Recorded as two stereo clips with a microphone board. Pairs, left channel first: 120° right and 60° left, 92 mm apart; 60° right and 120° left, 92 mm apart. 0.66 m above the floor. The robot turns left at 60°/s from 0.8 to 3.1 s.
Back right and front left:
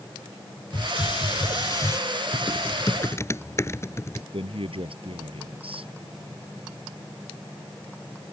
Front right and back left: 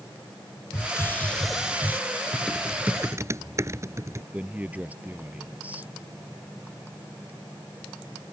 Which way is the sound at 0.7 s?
105° right.